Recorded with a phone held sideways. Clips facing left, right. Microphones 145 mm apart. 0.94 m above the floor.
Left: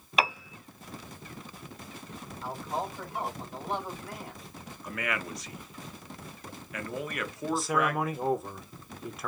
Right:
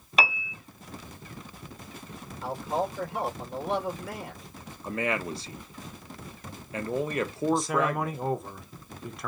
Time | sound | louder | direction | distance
0.2 | a piano | right 1 dB | centre (ahead or behind) | 0.9 m
2.4 | a man speaking | right 5 dB | 85° right | 3 m
4.8 | a man speaking | right 5 dB | 30° right (ahead or behind) | 0.9 m
7.5 | a man speaking | even | centre (ahead or behind) | 0.9 m